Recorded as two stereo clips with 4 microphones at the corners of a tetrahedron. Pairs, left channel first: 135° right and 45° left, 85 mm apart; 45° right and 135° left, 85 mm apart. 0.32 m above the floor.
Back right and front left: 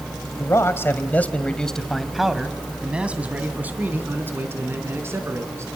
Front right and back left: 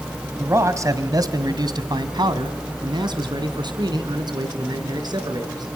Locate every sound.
0.4 s a man speaking: 175° right, 1.4 m; by 5.7 s 100° left, 3.5 m